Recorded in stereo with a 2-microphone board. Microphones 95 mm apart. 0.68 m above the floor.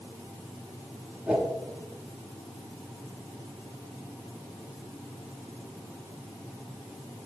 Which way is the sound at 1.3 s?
10° right (ahead or behind).